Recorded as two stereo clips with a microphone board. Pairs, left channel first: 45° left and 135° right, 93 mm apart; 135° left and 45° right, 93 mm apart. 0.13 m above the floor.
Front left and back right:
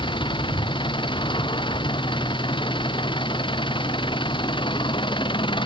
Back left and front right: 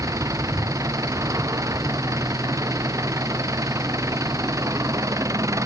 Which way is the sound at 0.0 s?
10° left.